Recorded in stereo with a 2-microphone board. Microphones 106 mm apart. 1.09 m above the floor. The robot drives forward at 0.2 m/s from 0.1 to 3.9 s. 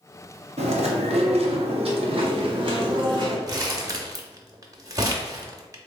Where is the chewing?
80° right, 0.7 m; by 3.4 s 45° right (ahead or behind), 0.9 m.